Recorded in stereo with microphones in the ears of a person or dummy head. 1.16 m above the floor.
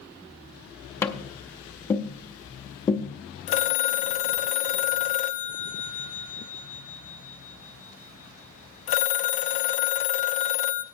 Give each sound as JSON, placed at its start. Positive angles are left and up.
{"t": 1.0, "sound": "tapping", "side_deg": 15, "distance_m": 0.7}
{"t": 3.5, "sound": "a phone ringing", "side_deg": 35, "distance_m": 0.7}